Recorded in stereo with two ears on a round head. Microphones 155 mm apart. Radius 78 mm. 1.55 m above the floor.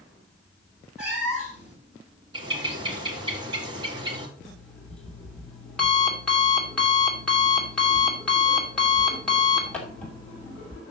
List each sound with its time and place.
1.0 s a cat meowing: 5° right (ahead or behind), 4 m
2.3 s a bird: 25° right (ahead or behind), 1.9 m
4.4 s an alarm clock: 5° left (ahead or behind), 3 m